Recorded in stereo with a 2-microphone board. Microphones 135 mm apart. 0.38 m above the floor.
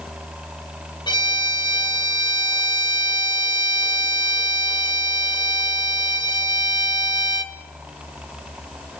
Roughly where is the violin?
Left.